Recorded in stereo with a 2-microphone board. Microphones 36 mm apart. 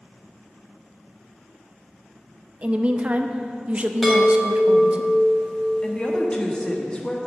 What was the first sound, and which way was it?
A woman speaking, 30° right (ahead or behind).